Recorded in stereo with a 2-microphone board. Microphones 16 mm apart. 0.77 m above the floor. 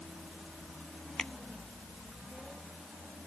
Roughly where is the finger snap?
Left.